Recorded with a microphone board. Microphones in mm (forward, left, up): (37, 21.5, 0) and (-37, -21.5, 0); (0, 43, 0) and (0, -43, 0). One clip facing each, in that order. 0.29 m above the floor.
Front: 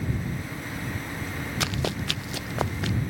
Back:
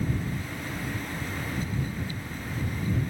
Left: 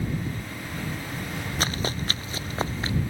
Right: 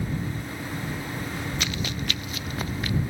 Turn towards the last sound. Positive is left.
turn(degrees=30)